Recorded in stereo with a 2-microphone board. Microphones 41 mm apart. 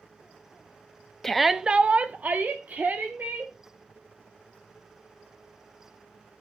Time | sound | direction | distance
1.2 | a shout | 5° left (ahead or behind) | 0.8 m